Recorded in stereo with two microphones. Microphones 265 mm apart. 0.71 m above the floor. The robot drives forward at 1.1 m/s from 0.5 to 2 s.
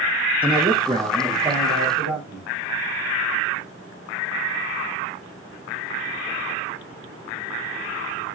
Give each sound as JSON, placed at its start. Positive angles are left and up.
{"t": 0.4, "sound": "a man speaking", "side_deg": -20, "distance_m": 0.5}